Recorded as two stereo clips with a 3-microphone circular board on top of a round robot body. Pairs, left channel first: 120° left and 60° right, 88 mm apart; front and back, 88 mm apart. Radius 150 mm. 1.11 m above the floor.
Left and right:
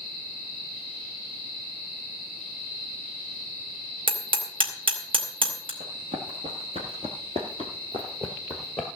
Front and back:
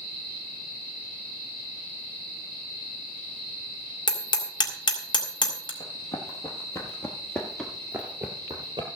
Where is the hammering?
35° right, 2.5 m.